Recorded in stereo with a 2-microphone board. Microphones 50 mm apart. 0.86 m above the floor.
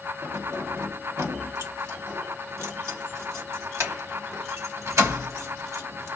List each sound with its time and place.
0.2 s keys jangling: 70° right (ahead or behind), 1.0 m